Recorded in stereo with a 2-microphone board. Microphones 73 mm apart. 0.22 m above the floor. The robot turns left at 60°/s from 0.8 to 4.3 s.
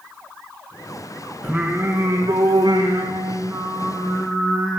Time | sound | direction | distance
1.4 | singing | 5° right | 7 m